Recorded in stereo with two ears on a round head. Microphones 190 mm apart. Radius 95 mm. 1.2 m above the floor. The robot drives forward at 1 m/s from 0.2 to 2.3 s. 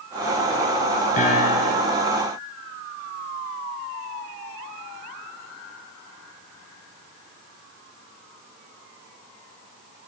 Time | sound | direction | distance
1.2 | a piano | 35° left (ahead or behind) | 5 m